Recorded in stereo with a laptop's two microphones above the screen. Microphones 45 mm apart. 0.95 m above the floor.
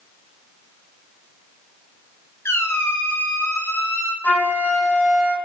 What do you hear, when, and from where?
2.5 s a squeak: 75° left (ahead or behind), 0.5 m
4.2 s a flute: 30° left (ahead or behind), 1.3 m